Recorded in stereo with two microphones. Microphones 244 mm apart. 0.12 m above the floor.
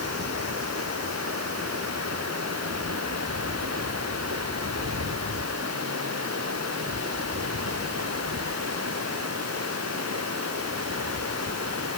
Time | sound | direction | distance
0.0 | running water | 80° right | ?